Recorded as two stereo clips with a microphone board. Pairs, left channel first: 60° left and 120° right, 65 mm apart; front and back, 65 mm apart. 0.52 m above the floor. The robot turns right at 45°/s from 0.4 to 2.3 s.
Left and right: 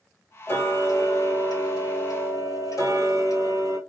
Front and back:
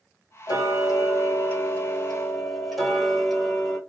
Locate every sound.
0.5 s ticking: 10° left, 1.6 m; by 3.8 s 90° left, 1.6 m